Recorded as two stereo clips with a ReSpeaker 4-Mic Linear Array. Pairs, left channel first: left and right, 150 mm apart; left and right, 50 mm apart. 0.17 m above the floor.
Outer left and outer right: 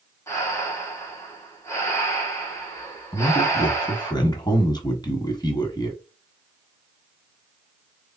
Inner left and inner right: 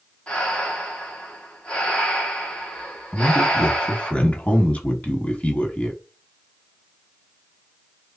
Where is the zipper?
I don't hear a zipper.